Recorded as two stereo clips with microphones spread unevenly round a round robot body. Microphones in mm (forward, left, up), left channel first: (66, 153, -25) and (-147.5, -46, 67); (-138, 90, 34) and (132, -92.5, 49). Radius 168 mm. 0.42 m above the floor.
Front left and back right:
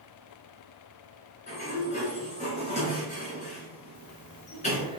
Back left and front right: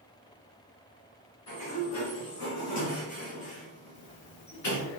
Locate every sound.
1.5 s a sliding door: 110° left, 2.5 m
4.0 s breathing: 150° left, 0.5 m